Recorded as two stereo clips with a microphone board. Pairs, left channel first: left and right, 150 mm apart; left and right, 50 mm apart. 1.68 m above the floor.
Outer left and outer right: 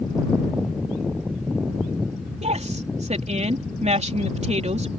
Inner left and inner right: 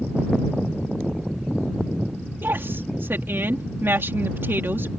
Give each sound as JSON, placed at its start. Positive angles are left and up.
{"t": 2.4, "sound": "a woman speaking", "side_deg": -50}